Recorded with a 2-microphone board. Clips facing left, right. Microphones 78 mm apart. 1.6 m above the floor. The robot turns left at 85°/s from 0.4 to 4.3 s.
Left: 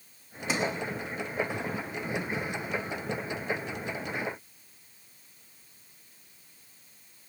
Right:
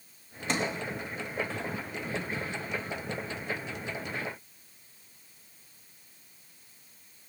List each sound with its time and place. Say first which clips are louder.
0.5 s a sliding door: left 1 dB; 5° left (ahead or behind), 3.5 m; by 0.7 s 25° left (ahead or behind), 3.5 m